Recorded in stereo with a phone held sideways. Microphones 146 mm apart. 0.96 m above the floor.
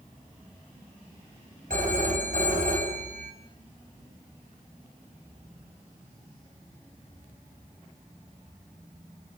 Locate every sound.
1.7 s a phone ringing: 65° right (ahead or behind), 4.5 m